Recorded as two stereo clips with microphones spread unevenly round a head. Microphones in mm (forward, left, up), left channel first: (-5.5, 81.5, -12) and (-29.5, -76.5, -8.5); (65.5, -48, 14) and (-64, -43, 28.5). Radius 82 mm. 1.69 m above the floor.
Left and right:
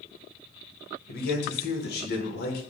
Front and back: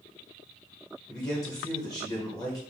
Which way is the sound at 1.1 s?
70° left.